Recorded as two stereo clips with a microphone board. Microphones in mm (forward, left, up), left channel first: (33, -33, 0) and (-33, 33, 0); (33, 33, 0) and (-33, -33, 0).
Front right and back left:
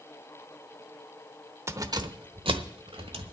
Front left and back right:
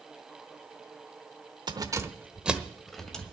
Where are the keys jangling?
165° right, 0.9 m; by 3.3 s 125° left, 1.8 m.